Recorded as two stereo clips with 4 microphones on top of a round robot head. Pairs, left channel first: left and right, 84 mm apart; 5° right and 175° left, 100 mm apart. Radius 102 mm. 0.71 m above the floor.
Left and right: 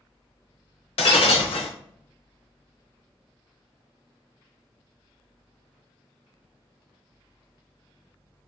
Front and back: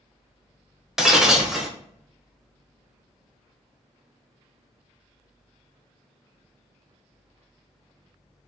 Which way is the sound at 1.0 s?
90° left.